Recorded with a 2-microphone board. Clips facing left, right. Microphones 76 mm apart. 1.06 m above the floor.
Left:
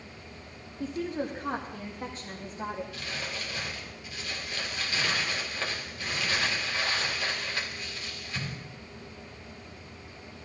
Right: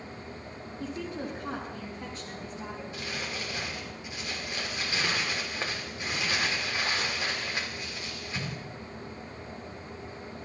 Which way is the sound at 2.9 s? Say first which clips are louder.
Right 1 dB; 20° right (ahead or behind).